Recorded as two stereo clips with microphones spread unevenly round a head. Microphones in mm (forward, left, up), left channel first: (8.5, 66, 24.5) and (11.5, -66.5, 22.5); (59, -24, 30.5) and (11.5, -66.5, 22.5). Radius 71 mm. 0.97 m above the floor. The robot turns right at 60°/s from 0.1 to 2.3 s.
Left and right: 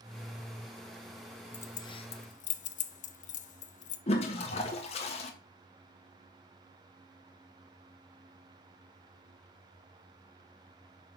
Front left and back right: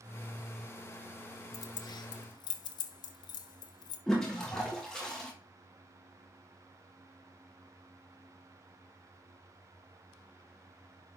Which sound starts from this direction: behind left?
A toilet flushing, at 4.1 s.